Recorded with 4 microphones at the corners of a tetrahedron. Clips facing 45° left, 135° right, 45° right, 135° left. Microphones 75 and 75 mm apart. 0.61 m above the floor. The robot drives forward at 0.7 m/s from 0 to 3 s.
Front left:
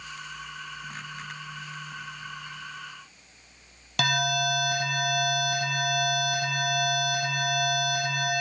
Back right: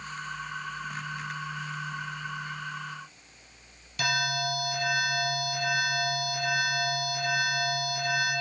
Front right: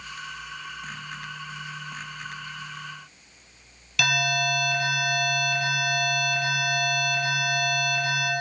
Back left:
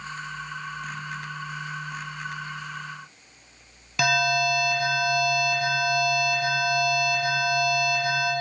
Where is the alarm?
75° left, 3 m.